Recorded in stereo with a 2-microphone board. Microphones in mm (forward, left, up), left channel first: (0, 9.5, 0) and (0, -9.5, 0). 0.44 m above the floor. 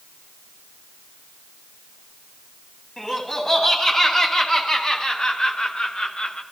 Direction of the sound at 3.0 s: 25° left (ahead or behind).